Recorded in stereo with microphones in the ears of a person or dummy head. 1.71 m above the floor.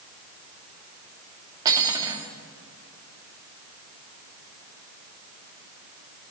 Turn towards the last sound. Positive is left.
turn(degrees=-20)  # may be behind; listen again after turning